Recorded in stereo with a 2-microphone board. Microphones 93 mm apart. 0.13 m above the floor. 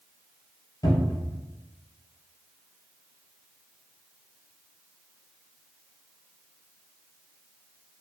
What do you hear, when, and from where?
0.8 s a cupboard door: 55° left (ahead or behind), 1.4 m